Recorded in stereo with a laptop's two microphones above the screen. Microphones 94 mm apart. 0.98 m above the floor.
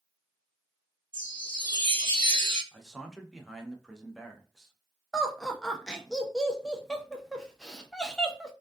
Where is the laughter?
5° left (ahead or behind), 0.5 m.